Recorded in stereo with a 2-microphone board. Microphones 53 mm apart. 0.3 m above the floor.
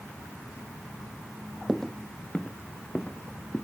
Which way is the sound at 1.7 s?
Centre (ahead or behind).